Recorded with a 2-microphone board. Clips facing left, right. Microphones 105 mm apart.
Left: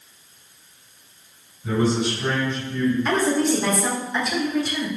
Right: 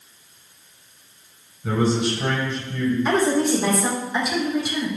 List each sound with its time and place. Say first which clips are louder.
1.6 s a man speaking: even; 80° right, 5 m; by 3.0 s 70° right (ahead or behind), 5 m
3.0 s a woman speaking: right 1 dB; 10° right (ahead or behind), 3.5 m